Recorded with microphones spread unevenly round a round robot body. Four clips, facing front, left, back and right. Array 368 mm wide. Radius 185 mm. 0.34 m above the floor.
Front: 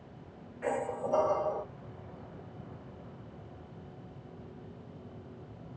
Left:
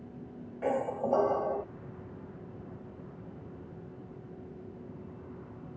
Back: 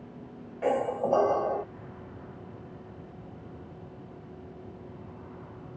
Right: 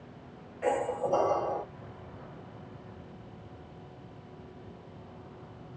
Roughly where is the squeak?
Behind.